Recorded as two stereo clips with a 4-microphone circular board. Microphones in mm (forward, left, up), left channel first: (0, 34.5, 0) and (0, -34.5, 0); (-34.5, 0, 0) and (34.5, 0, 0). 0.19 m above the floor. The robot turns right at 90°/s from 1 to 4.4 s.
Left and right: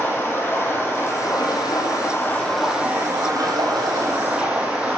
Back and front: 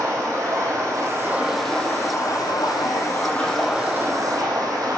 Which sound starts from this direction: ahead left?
Running water, at 0.0 s.